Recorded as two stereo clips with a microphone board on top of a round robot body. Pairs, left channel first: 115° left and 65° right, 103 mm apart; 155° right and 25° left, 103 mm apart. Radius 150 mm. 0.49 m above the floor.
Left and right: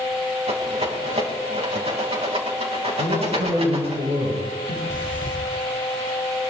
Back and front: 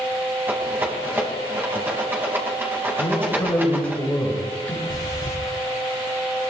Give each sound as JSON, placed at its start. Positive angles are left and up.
{"t": 0.5, "sound": "a rattle", "azimuth_deg": -45, "distance_m": 4.0}
{"t": 3.0, "sound": "a man speaking", "azimuth_deg": -80, "distance_m": 9.5}
{"t": 4.9, "sound": "breathing", "azimuth_deg": -110, "distance_m": 3.5}